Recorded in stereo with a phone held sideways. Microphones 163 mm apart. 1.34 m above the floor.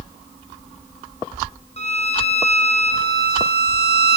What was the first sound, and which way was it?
A violin, 40° left (ahead or behind).